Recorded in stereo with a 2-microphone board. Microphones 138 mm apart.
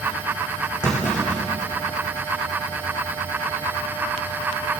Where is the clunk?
30° left (ahead or behind), 5 m.